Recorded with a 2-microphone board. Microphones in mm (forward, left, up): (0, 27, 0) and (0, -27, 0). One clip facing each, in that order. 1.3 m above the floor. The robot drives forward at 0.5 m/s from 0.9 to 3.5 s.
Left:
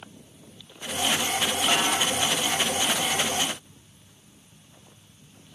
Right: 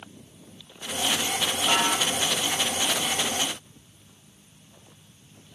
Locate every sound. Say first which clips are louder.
1.7 s a snare drum: right 2 dB; 5° left (ahead or behind), 5 m